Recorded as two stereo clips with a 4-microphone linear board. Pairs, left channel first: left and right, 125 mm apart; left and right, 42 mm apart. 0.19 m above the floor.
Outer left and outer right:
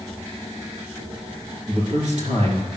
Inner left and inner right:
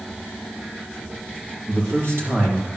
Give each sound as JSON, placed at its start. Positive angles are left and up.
{"t": 1.7, "sound": "a man speaking", "side_deg": -65, "distance_m": 3.0}